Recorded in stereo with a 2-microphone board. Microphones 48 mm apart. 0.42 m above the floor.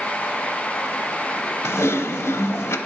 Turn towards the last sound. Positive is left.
turn(degrees=70)  # may be behind; listen again after turning